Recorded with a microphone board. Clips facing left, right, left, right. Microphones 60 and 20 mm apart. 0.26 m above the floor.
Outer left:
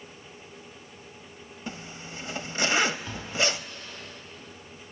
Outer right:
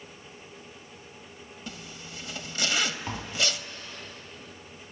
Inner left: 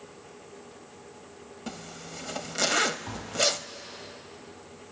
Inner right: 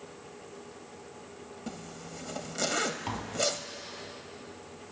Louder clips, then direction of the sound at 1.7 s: Outer left 4 dB, inner left 3 dB; 30° left (ahead or behind).